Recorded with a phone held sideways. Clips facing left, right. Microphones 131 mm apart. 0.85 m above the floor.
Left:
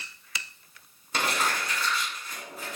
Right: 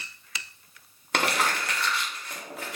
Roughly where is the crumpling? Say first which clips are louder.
Right 2 dB; right.